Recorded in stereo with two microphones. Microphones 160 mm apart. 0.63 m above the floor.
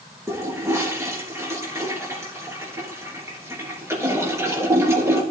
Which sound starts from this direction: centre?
A toilet flushing, at 0.3 s.